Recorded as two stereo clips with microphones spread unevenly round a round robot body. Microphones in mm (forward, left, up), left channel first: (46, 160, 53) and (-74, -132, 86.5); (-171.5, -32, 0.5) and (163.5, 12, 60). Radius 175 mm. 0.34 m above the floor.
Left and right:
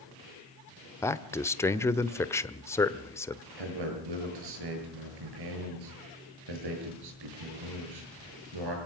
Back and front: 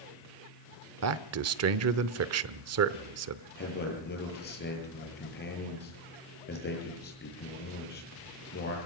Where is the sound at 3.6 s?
110° right, 8.5 m.